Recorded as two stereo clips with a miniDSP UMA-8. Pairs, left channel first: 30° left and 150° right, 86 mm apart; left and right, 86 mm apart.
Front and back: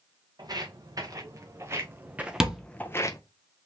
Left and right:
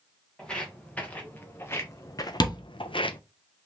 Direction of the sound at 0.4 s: 170° left.